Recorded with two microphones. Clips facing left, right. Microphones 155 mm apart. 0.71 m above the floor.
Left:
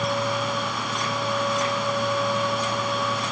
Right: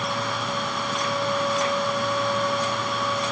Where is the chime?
I don't hear a chime.